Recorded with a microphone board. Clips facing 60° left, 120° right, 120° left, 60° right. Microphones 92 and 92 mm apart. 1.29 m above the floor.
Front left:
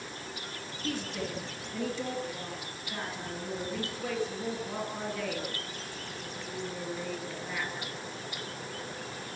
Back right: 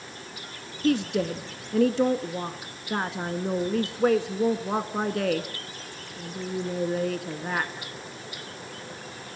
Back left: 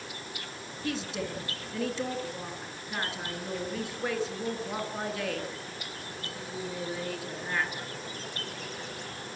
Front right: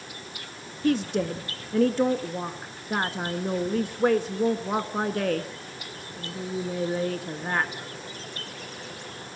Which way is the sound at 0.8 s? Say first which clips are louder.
Back right 12 dB, front right 10 dB; 95° right.